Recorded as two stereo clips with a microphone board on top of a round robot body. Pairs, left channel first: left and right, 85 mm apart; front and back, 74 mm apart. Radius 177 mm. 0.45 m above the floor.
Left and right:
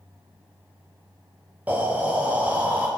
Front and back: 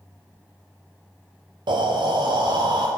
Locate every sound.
1.7 s breathing: 160° right, 0.5 m